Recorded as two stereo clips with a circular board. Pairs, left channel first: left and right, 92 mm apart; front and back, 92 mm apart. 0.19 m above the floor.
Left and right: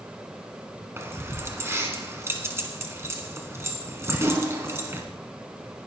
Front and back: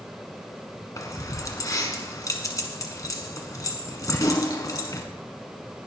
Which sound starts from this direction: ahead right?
Keys jangling, at 1.0 s.